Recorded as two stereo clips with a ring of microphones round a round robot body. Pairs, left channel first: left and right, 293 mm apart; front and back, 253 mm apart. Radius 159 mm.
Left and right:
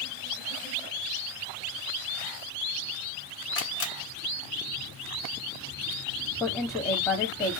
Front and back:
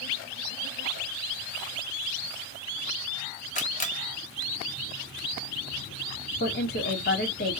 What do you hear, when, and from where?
3.5 s a camera shutter: 55° left, 2 m
6.4 s a woman speaking: 15° left, 1.6 m